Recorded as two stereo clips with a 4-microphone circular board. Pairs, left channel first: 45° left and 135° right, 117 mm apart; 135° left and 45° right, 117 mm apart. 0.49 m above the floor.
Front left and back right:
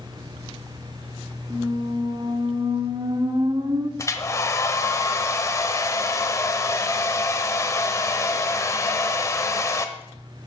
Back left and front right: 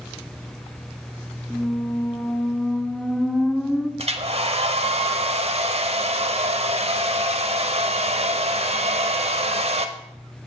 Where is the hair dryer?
15° right, 0.8 m.